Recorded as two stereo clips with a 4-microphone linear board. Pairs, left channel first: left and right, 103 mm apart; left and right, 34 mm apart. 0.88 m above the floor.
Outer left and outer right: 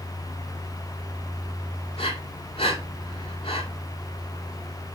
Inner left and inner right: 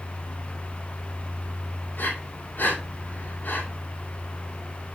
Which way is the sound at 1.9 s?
65° left (ahead or behind).